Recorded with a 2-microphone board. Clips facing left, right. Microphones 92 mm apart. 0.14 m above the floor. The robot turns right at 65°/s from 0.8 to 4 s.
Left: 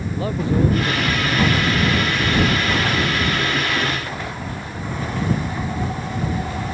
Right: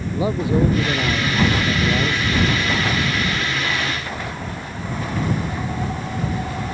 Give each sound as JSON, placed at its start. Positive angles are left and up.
{"t": 0.1, "sound": "a man speaking", "azimuth_deg": -165}